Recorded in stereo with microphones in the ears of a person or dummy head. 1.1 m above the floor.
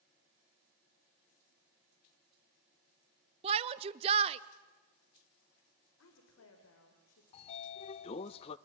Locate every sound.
3.4 s a shout: 30° right (ahead or behind), 0.5 m
6.0 s a woman speaking: 85° left, 3.5 m
7.3 s a sliding door: 35° left (ahead or behind), 0.7 m